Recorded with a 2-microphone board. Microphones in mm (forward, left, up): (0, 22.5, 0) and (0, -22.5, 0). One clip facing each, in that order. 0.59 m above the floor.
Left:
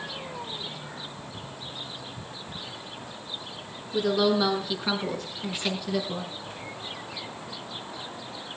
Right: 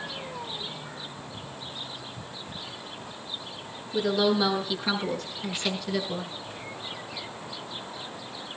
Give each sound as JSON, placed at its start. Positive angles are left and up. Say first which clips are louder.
{"t": 3.9, "sound": "a woman speaking", "louder": "left 1 dB", "side_deg": 0, "distance_m": 5.5}